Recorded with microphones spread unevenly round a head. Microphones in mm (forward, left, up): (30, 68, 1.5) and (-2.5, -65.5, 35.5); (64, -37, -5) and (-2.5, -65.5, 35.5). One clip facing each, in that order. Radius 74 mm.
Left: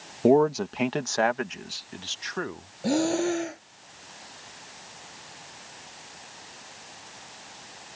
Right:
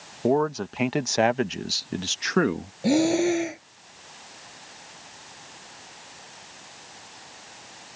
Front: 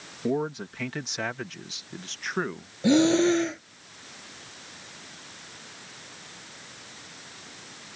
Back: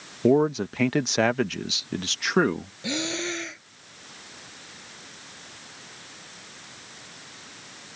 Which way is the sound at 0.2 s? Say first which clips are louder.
Left 3 dB, back 8 dB; 145° left.